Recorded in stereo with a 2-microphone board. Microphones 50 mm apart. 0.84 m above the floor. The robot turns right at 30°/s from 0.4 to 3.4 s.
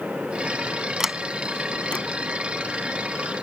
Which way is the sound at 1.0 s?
10° right (ahead or behind).